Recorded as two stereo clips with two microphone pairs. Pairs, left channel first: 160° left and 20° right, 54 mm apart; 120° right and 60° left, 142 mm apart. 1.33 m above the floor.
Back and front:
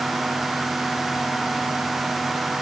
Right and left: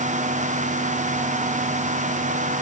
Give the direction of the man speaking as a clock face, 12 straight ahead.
No man speaking in this recording.